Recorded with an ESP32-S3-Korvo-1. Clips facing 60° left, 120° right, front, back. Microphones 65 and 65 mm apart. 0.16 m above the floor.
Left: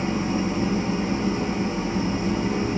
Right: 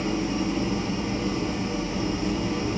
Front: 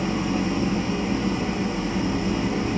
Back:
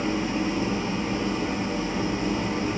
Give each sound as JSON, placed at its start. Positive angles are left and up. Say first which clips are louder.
{"t": 0.0, "sound": "an engine running", "louder": "left 2 dB, front 1 dB", "azimuth_deg": 90, "distance_m": 8.0}